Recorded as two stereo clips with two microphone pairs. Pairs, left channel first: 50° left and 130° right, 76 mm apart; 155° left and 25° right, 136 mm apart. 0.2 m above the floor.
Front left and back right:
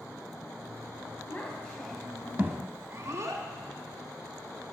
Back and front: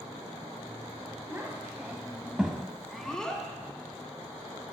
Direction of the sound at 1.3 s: 25° left.